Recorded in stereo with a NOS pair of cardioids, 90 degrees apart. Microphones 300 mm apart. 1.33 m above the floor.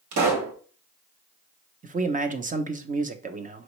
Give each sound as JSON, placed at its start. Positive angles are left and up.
{"t": 0.1, "sound": "a pop", "azimuth_deg": -65, "distance_m": 1.8}
{"t": 1.8, "sound": "a man speaking", "azimuth_deg": -25, "distance_m": 0.9}